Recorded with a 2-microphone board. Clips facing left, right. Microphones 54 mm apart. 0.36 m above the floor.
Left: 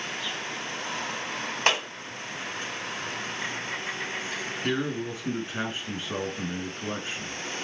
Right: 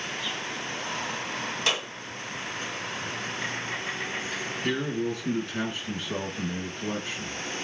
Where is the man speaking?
20° left (ahead or behind), 4 m.